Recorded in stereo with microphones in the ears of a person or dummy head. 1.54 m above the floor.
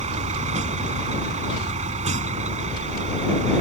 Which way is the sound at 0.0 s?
35° right (ahead or behind).